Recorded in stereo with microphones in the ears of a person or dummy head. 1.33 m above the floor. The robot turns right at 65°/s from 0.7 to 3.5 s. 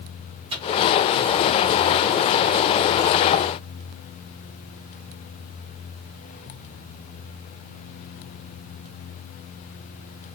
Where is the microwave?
30° right (ahead or behind), 1.4 m.